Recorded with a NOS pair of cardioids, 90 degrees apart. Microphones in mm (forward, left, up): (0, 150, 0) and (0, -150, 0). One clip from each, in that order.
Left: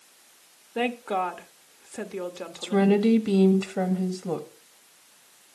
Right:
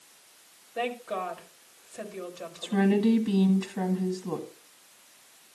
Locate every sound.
0.8 s a woman speaking: 55° left, 1.4 m
2.6 s a woman speaking: 40° left, 1.6 m